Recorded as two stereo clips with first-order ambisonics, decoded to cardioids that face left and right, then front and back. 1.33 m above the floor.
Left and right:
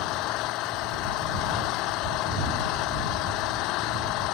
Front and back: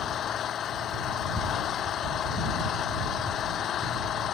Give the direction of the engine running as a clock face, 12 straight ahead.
10 o'clock.